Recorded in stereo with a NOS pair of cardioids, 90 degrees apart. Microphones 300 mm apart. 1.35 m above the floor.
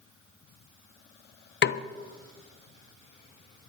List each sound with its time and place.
1.6 s a snare drum: 40° left, 0.7 m